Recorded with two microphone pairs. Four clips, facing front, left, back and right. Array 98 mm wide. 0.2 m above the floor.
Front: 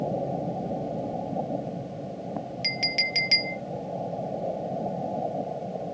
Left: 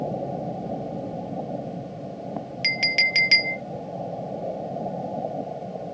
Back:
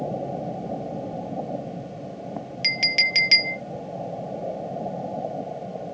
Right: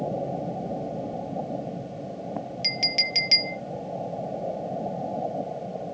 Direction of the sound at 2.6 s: 125° left.